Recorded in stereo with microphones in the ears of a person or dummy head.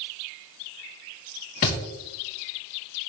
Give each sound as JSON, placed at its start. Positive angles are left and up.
{"t": 1.6, "sound": "a thud", "side_deg": 40, "distance_m": 1.7}